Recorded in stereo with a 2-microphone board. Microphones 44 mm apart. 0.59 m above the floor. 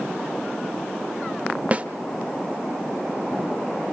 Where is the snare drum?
30° right (ahead or behind), 1.4 m.